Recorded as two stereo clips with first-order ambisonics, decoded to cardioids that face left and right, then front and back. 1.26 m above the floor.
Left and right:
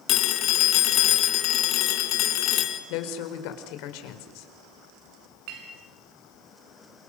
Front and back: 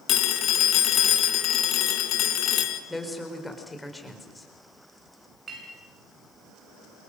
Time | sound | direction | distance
0.1 | a phone ringing | 45° left | 2.5 m
2.9 | a woman speaking | 85° left | 4.5 m
5.5 | a clink | 110° right | 8.5 m